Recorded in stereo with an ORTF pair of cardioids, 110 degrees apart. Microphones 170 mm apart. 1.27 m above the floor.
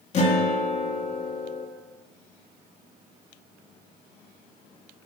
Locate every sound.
0.1 s a guitar: 45° left, 2.5 m